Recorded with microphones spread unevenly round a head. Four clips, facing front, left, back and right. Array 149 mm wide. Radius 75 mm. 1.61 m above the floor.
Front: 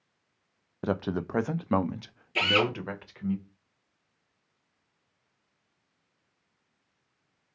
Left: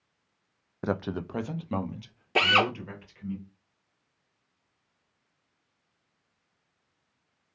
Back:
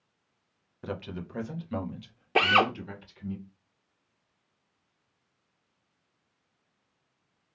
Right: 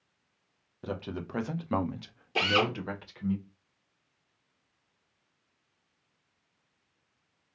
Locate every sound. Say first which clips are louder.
0.8 s a man speaking: left 6 dB, front 8 dB; 40° left, 0.8 m; by 3.4 s 35° right, 2.5 m
2.4 s a drill: left 3 dB, back 3 dB; 155° left, 1.4 m